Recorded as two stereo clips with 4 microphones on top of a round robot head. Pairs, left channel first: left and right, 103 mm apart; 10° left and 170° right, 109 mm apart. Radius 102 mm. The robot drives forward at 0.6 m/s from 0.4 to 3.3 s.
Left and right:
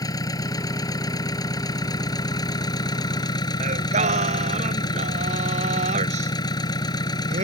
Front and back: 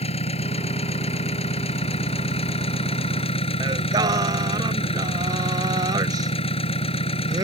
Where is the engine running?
35° left; by 7.5 s 40° left.